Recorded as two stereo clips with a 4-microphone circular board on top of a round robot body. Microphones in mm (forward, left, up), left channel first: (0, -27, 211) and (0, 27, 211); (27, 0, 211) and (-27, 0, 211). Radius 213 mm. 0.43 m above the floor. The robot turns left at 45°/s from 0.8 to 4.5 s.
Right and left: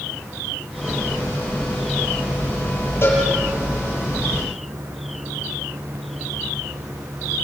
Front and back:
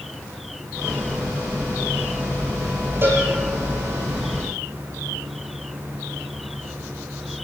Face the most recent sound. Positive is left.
turn(degrees=160)